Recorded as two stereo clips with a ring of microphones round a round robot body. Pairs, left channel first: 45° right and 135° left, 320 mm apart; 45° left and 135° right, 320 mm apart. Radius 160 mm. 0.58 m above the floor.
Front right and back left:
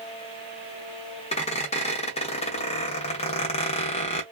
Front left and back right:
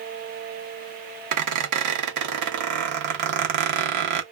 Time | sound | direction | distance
1.3 | a squeak | 115° right | 0.7 m